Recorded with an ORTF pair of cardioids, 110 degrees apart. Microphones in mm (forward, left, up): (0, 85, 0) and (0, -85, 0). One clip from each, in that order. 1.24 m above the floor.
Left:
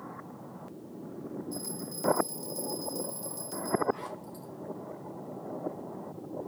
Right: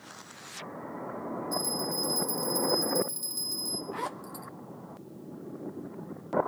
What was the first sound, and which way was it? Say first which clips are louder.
A bell: right 9 dB; 40° right.